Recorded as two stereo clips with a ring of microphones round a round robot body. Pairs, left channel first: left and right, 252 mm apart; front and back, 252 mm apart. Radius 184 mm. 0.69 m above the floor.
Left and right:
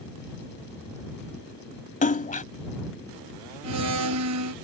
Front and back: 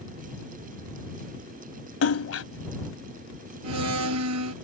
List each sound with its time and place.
2.0 s a splash: 30° left
3.6 s a blender: 135° right